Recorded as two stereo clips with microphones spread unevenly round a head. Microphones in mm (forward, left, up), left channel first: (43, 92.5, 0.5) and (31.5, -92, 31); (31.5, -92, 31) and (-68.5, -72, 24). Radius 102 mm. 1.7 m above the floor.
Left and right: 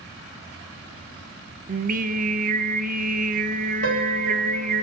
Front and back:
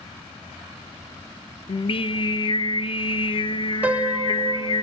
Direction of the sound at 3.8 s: 115° right.